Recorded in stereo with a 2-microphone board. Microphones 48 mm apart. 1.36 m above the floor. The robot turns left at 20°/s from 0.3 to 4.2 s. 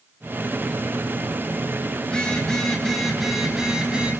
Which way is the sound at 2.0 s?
15° left.